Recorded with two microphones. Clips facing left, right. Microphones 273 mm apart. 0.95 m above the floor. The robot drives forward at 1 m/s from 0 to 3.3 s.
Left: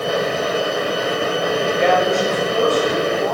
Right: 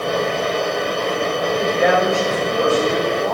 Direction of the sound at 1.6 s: 10° right (ahead or behind).